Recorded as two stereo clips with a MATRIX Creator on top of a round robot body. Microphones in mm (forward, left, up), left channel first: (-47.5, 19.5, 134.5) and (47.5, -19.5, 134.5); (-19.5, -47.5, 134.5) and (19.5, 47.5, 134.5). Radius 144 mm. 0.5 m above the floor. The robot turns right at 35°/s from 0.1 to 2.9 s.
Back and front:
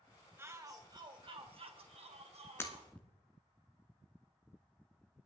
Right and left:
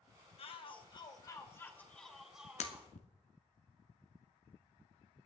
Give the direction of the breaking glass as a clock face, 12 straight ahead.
4 o'clock.